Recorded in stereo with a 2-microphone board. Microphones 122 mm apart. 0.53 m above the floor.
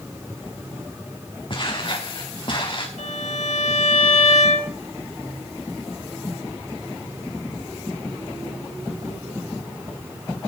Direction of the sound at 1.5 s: 45° left (ahead or behind).